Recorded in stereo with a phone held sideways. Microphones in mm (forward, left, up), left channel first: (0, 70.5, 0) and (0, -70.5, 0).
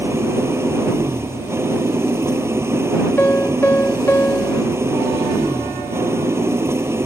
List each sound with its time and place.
0.0 s an engine running: 20° right (ahead or behind)
3.2 s a piano: 15° left (ahead or behind)